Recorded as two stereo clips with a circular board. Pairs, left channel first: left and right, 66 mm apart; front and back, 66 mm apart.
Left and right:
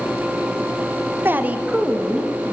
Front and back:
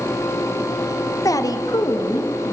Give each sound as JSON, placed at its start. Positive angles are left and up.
{"t": 1.2, "sound": "a woman speaking", "azimuth_deg": -35, "distance_m": 0.6}